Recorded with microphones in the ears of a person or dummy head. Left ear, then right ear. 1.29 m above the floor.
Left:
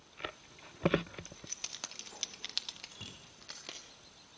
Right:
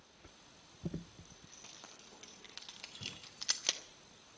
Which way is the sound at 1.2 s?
75° left (ahead or behind).